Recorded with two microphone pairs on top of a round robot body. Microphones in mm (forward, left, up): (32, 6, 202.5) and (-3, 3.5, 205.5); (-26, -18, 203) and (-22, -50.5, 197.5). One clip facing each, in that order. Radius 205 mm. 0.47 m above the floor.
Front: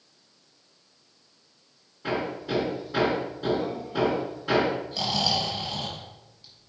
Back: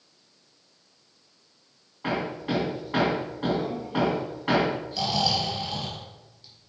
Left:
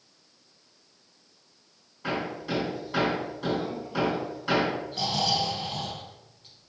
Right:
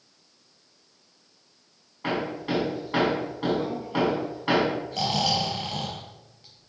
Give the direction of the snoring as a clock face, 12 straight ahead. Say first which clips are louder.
Back 1 dB, right 1 dB; 3 o'clock.